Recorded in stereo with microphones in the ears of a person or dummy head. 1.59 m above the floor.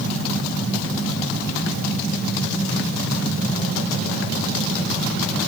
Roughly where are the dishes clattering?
No dishes clattering in this recording.